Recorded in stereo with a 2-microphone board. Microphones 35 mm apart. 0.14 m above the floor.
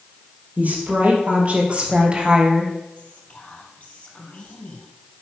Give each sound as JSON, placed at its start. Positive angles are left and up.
{"t": 0.6, "sound": "a woman speaking", "side_deg": -45, "distance_m": 3.5}
{"t": 3.0, "sound": "whispering", "side_deg": 50, "distance_m": 3.5}